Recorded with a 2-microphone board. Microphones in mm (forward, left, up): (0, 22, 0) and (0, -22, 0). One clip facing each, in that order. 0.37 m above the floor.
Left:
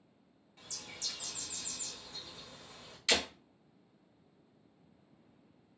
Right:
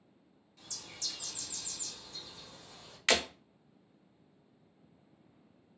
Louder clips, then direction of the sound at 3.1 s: Right 3 dB; 55° right (ahead or behind).